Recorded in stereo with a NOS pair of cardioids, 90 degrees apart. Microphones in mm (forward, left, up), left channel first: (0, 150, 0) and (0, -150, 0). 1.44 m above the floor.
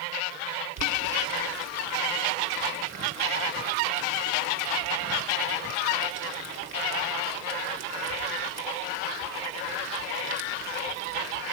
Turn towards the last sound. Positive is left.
turn(degrees=-60)